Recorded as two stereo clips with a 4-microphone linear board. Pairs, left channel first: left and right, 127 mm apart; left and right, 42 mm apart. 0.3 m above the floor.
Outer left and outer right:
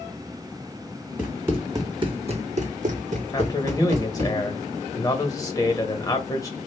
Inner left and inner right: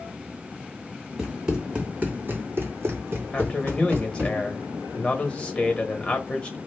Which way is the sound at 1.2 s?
10° right (ahead or behind).